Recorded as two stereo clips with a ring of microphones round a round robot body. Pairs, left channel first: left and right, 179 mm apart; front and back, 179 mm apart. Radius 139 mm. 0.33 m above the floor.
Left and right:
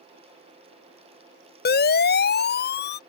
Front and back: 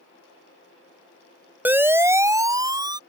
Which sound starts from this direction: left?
A siren, at 1.6 s.